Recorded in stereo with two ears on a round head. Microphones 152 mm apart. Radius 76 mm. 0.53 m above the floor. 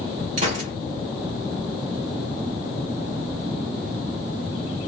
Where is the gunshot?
45° right (ahead or behind), 1.9 m.